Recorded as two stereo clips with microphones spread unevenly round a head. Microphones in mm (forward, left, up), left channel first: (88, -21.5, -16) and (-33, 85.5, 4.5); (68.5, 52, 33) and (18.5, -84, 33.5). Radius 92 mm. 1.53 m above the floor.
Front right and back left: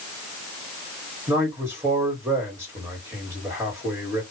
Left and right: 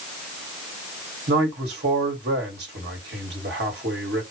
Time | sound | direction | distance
1.3 | a man speaking | 145° right | 1.7 m